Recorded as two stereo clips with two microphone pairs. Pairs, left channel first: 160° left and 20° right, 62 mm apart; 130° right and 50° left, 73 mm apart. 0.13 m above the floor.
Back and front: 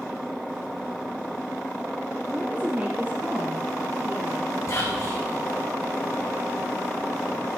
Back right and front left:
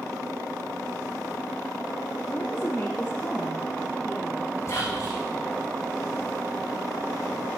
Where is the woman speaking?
85° right, 2 m; by 4.6 s 60° right, 3 m.